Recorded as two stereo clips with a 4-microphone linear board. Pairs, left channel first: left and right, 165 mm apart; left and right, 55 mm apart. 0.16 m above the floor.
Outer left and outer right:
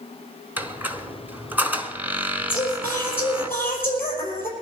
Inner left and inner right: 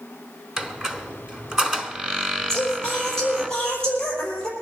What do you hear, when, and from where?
0.6 s a squeak: 10° right (ahead or behind), 1.1 m
2.5 s singing: 10° left (ahead or behind), 5 m